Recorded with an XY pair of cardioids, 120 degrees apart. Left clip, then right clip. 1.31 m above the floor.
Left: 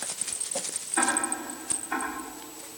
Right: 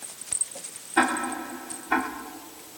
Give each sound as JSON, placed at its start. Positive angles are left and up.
{"t": 1.0, "sound": "ticking", "azimuth_deg": -50, "distance_m": 3.0}